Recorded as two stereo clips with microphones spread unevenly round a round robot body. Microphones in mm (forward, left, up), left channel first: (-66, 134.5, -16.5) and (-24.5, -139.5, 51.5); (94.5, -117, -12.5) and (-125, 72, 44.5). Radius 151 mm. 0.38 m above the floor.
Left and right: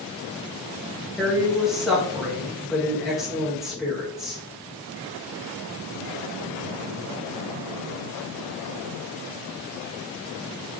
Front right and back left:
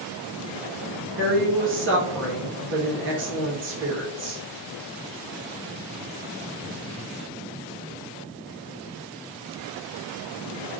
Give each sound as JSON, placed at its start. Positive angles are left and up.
{"t": 1.2, "sound": "a woman speaking", "azimuth_deg": 165, "distance_m": 0.9}